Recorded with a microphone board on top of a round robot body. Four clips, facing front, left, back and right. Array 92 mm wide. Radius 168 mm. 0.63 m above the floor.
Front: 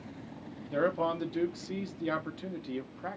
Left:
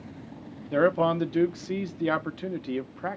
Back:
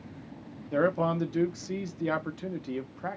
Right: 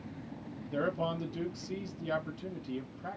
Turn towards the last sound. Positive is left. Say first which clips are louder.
# left 11 dB, back 3 dB
turn(degrees=105)